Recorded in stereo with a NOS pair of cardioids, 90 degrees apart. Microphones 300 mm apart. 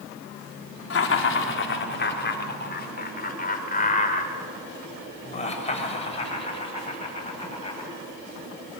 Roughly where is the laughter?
Ahead left.